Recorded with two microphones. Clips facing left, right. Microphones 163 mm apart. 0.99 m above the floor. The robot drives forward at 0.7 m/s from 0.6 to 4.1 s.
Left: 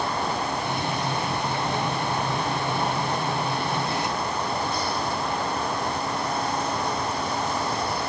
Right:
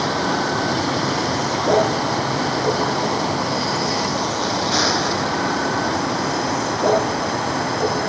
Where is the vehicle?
90° right; by 8.1 s 70° right (ahead or behind).